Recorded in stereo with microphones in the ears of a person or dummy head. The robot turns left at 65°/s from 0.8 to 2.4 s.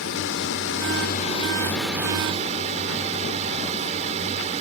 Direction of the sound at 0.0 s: 70° left.